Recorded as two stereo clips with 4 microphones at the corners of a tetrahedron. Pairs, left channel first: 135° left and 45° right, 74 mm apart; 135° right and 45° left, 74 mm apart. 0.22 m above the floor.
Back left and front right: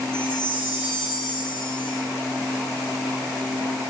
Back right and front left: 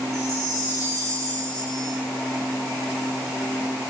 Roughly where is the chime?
Right.